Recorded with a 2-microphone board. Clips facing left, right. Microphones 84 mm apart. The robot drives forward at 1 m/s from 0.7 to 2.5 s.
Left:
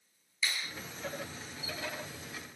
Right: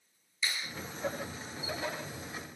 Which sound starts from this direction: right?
A clap, at 0.4 s.